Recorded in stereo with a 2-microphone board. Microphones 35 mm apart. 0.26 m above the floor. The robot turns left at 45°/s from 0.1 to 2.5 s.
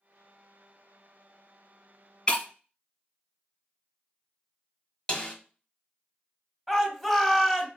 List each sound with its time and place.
2.3 s breaking glass: 30° left (ahead or behind), 1.2 m; by 2.5 s 35° left (ahead or behind), 1.2 m
5.1 s a snare drum: 25° left (ahead or behind), 1.5 m
6.7 s a shout: 5° left (ahead or behind), 1.2 m